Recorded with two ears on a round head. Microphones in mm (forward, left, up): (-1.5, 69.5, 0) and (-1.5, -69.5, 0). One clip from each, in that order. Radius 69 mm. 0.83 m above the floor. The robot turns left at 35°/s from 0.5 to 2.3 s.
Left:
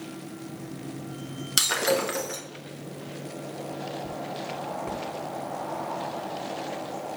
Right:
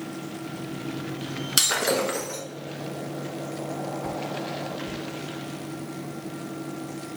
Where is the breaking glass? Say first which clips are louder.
Right 1 dB; 5° left (ahead or behind), 1.0 m; by 2.4 s 20° left (ahead or behind), 1.0 m.